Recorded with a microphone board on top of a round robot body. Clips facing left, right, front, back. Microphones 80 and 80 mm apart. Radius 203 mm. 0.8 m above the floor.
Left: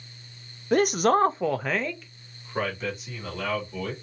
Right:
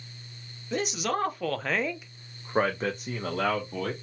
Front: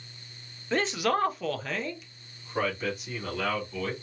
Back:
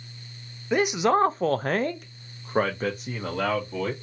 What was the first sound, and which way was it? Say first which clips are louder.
A man speaking: left 9 dB, back 5 dB; 105° left.